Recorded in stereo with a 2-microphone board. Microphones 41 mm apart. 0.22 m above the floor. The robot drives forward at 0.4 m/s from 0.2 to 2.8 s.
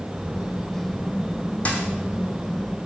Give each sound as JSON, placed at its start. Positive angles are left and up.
{"t": 1.6, "sound": "a dropped coin", "side_deg": 35, "distance_m": 0.8}